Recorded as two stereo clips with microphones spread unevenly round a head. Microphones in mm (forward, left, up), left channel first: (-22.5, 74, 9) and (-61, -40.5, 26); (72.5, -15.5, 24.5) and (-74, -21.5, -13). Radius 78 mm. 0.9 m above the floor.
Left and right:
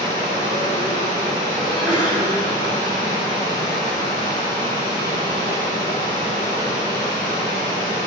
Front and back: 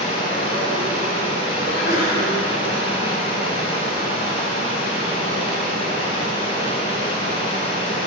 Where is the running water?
50° right, 4.5 m.